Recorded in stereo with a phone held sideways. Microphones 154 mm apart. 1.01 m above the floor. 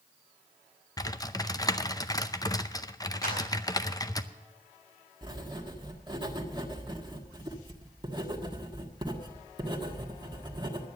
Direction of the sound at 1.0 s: 25° left (ahead or behind).